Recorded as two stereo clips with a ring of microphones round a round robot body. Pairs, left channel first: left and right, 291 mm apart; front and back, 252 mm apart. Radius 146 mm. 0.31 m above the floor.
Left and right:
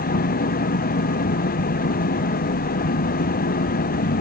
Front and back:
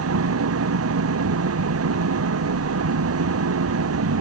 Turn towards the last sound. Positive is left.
turn(degrees=150)